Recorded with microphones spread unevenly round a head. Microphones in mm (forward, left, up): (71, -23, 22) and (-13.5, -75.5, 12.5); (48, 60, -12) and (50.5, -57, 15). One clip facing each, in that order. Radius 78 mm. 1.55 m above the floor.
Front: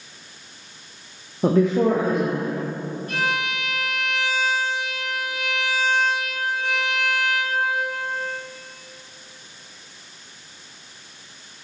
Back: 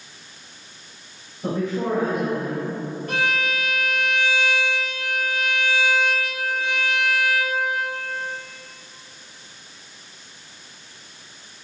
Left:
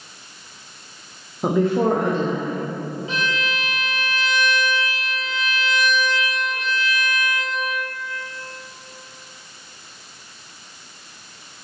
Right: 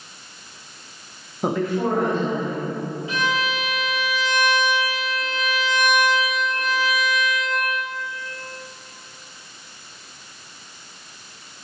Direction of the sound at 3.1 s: 165° left.